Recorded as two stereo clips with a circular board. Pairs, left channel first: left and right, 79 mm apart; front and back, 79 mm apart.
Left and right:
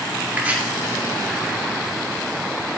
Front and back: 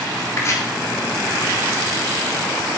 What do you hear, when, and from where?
0.3 s chopping: 30° right, 1.2 m